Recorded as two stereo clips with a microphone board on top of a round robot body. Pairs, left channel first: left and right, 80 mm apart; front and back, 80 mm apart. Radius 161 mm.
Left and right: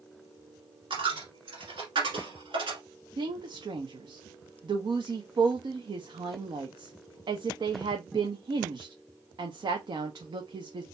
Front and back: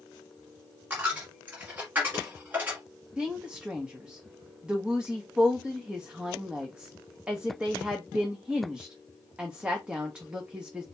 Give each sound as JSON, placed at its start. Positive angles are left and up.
{"t": 0.9, "sound": "a dropped coin", "azimuth_deg": -110, "distance_m": 1.6}
{"t": 3.2, "sound": "a woman speaking", "azimuth_deg": -105, "distance_m": 1.0}